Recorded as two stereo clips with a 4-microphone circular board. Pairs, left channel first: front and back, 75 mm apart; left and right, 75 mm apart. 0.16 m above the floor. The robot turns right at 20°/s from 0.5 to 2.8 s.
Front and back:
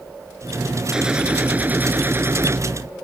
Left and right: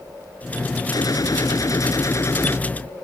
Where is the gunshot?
100° left; by 2.6 s 135° left.